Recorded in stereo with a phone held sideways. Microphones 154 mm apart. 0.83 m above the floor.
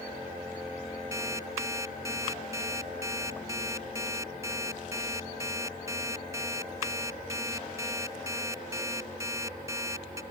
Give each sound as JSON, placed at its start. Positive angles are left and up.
{"t": 1.1, "sound": "an alarm clock", "side_deg": -20}